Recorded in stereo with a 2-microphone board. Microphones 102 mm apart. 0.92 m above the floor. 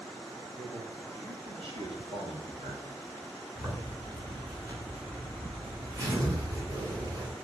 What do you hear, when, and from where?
0.6 s a man speaking: 70° right (ahead or behind), 6.5 m
3.5 s a zipper: 40° right (ahead or behind), 8 m